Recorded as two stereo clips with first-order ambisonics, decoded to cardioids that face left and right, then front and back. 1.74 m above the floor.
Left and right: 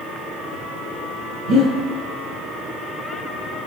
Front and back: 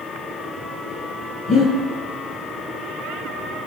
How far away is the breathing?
About 6.5 m.